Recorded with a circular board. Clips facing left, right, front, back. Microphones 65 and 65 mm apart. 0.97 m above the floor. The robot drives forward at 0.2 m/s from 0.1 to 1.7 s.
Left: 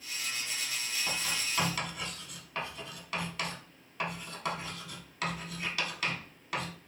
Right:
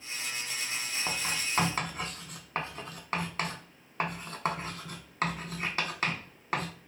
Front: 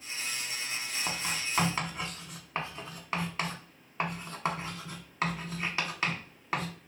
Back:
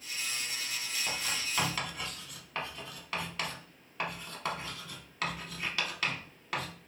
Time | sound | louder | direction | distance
1.1 | writing | right 2 dB, front 2 dB | 50° right | 0.7 m